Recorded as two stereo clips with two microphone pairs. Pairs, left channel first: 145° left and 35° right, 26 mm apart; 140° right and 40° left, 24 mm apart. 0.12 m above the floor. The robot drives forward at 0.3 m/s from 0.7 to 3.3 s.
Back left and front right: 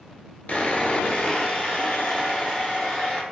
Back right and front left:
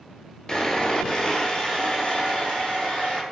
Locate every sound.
0.5 s sawing: 160° left, 0.5 m; by 3.2 s 175° left, 1.2 m